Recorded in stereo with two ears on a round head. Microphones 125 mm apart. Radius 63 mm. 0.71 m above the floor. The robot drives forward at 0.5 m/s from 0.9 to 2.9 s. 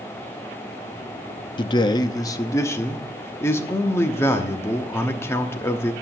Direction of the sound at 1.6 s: 35° left (ahead or behind).